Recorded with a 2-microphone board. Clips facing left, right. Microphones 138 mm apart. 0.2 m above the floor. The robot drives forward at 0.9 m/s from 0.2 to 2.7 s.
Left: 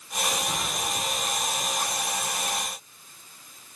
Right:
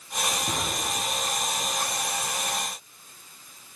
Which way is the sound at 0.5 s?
60° right (ahead or behind).